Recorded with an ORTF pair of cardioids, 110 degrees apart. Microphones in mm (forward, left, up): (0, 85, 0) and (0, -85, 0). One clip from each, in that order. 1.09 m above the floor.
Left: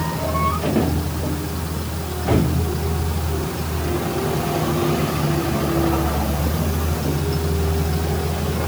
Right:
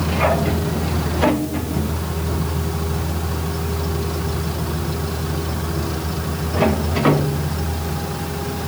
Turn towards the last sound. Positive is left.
No sound to turn to.